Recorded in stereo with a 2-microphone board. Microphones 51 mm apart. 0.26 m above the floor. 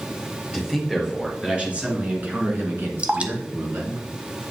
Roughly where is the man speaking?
Centre.